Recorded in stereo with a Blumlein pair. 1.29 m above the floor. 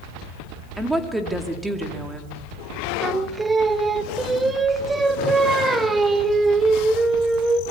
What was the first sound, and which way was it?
A woman speaking, 5° right.